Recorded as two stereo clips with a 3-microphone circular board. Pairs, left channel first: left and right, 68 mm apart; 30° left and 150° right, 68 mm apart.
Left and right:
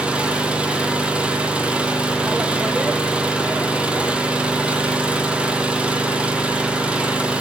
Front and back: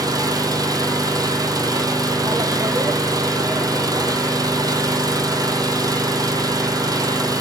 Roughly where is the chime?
No chime in this recording.